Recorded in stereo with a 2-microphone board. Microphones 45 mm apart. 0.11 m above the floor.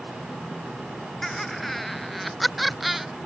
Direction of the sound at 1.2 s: 10° left (ahead or behind).